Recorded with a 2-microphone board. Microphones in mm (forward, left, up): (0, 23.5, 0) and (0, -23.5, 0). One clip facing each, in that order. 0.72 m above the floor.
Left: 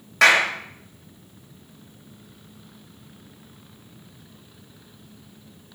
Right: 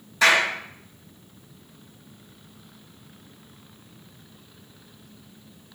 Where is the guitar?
No guitar in this recording.